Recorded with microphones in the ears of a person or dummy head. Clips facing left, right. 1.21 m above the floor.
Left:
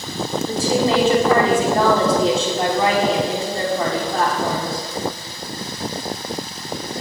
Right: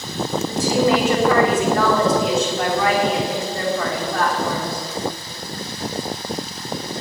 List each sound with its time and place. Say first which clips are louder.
0.5 s a woman speaking: right 1 dB; 25° left (ahead or behind), 4 m